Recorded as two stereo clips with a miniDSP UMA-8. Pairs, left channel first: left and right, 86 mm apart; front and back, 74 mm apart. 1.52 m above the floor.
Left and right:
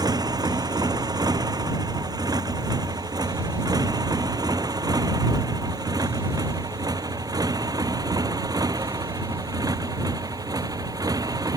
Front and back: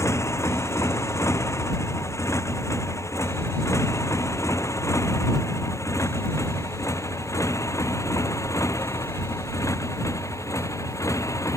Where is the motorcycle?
50° right; by 11.6 s 45° right.